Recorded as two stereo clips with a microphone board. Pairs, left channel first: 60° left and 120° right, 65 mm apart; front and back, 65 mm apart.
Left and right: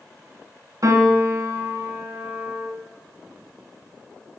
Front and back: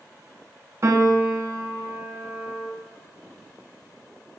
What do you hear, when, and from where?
0.8 s a piano: 140° right, 1.5 m